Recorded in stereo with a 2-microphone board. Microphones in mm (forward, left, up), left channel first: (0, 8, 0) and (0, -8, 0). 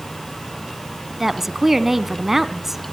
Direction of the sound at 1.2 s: 15° right (ahead or behind).